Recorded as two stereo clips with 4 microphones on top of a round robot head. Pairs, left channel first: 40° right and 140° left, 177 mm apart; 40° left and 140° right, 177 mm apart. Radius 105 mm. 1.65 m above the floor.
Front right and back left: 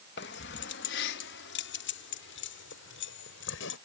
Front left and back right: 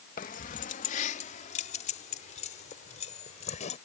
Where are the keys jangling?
5° right; by 3.8 s 15° right.